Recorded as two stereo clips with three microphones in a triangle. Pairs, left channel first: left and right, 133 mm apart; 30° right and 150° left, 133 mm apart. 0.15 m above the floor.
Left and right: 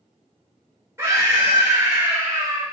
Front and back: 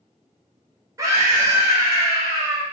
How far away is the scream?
About 2.0 m.